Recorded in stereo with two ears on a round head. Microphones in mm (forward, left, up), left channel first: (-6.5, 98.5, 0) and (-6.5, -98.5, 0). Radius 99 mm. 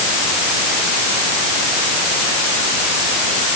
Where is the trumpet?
No trumpet in this recording.